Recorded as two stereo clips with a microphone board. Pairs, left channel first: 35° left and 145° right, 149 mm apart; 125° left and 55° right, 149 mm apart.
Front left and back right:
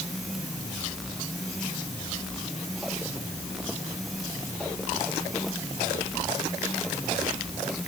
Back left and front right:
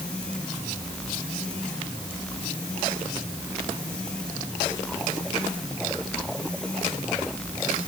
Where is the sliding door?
No sliding door in this recording.